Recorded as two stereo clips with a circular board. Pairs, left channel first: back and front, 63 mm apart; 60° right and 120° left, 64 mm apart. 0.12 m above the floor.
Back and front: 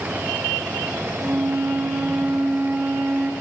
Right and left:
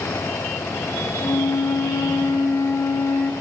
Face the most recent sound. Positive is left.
turn(degrees=-50)